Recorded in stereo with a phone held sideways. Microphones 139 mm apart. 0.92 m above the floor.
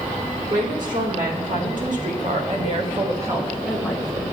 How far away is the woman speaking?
About 3 m.